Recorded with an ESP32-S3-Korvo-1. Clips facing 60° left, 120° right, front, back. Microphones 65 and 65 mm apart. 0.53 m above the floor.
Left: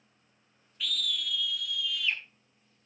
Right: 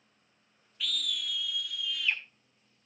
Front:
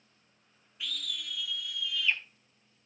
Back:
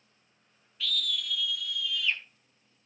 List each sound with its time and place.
0.8 s a scream: 30° right, 1.0 m; by 2.2 s 55° right, 1.6 m